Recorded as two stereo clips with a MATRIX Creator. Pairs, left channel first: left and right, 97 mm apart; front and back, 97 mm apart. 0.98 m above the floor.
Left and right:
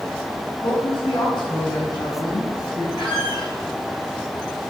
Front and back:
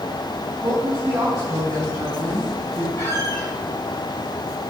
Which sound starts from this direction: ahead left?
A squeak, at 3.0 s.